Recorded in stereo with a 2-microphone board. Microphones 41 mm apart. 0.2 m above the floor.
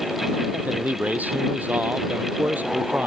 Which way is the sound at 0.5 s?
45° right (ahead or behind).